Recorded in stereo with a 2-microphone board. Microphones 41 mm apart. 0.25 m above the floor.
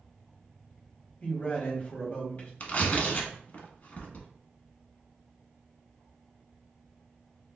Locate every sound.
1.2 s a man speaking: 30° left (ahead or behind), 1.1 m
2.6 s tearing paper: 40° left (ahead or behind), 0.7 m